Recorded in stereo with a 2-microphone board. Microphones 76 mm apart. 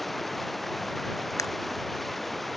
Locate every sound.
0.0 s running water: centre (ahead or behind)
1.4 s a camera shutter: 45° left (ahead or behind)